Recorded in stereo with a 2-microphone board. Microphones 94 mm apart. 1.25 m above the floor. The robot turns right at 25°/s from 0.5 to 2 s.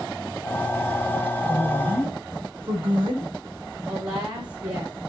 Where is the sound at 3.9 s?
60° right (ahead or behind), 4.5 m.